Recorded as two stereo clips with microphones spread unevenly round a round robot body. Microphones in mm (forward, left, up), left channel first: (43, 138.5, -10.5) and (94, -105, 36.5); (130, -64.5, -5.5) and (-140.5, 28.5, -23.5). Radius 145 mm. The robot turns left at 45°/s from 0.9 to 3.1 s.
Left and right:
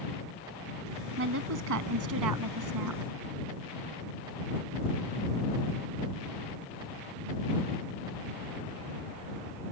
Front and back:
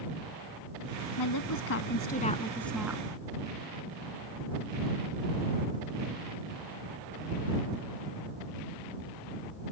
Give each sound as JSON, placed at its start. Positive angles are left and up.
{"t": 1.2, "sound": "a woman speaking", "azimuth_deg": -35}